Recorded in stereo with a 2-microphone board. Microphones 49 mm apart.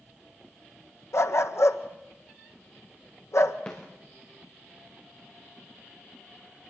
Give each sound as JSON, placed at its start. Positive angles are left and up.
{"t": 1.1, "sound": "a dog barking", "side_deg": 70, "distance_m": 1.5}
{"t": 3.7, "sound": "a snare drum", "side_deg": 25, "distance_m": 5.0}